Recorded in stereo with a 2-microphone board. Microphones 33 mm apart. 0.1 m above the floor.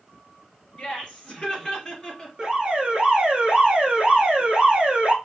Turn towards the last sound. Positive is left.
turn(degrees=-30)  # may be behind; listen again after turning